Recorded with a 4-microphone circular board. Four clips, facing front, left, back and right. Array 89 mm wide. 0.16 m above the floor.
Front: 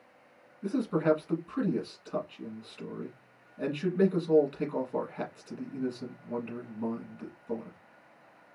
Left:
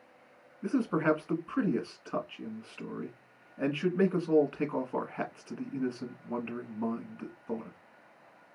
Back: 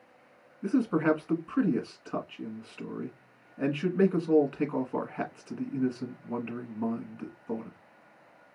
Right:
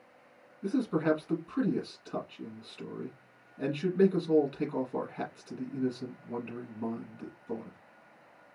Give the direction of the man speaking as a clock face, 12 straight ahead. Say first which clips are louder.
Left 1 dB, back 2 dB; 8 o'clock.